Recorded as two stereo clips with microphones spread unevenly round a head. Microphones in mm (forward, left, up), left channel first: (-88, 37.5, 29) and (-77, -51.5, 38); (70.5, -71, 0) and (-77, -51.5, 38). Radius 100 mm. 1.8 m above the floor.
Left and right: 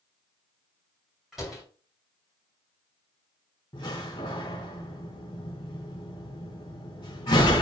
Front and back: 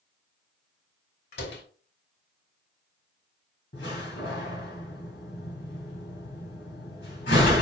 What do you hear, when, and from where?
1.3 s a door slam: 5° left, 2.5 m
3.7 s a door slam: 35° left, 3 m